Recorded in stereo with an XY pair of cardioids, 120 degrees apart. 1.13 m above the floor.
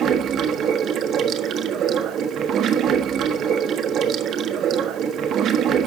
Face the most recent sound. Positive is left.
turn(degrees=-60)